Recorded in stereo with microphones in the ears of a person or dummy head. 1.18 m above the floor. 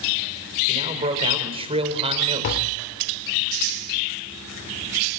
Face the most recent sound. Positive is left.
turn(degrees=55)  # may be behind; listen again after turning